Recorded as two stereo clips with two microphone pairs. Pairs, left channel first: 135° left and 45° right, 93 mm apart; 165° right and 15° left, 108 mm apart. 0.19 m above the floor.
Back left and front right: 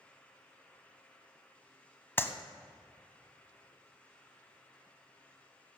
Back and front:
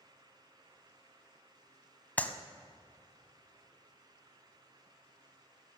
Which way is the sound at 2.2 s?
145° left.